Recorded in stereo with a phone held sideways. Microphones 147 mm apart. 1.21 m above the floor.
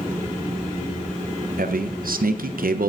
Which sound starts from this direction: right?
A man speaking, at 1.6 s.